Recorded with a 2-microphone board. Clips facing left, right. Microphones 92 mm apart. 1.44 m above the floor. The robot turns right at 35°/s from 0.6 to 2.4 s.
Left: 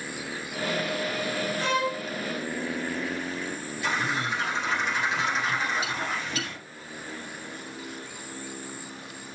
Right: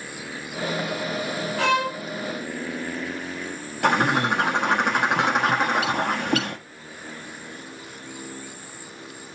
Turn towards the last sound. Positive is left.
turn(degrees=-60)  # may be behind; listen again after turning